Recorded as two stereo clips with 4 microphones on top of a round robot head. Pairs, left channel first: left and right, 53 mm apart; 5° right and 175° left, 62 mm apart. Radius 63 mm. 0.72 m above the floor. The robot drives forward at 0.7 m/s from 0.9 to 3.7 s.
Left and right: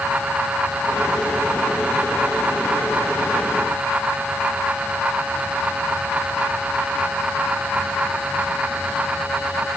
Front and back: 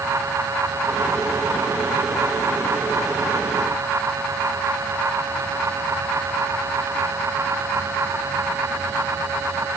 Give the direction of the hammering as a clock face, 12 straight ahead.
I don't hear hammering.